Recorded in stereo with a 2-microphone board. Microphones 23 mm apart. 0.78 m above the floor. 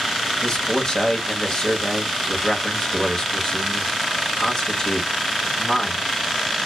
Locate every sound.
0.4 s a man speaking: 40° left (ahead or behind), 1.1 m